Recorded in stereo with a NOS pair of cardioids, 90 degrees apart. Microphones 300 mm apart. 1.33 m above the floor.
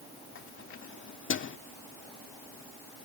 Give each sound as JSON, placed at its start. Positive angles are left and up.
{"t": 0.3, "sound": "keys jangling", "azimuth_deg": 45}